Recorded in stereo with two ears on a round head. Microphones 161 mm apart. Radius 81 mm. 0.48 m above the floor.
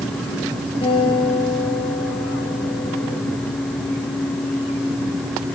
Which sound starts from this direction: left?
A guitar, at 0.8 s.